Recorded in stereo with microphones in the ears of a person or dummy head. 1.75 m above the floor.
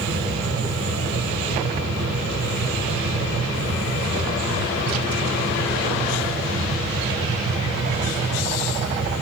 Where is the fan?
65° right (ahead or behind), 3.5 m.